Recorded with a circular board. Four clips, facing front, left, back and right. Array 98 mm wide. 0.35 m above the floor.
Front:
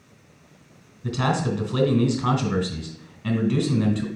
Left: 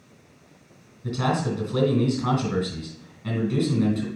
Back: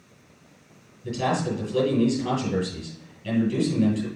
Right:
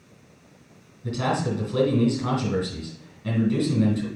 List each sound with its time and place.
1.0 s a man speaking: 10° left, 3 m